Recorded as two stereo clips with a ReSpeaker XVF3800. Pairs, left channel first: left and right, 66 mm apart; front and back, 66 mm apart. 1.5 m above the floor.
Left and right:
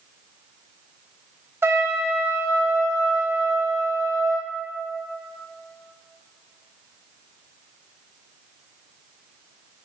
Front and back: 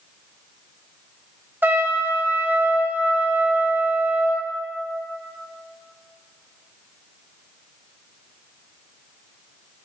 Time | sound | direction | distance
1.6 | a trumpet | 130° right | 1.0 m